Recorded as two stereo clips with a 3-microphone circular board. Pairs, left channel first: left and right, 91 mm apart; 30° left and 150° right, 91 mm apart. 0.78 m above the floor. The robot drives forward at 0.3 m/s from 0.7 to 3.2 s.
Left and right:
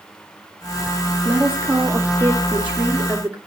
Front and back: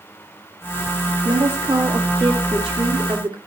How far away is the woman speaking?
About 1.5 m.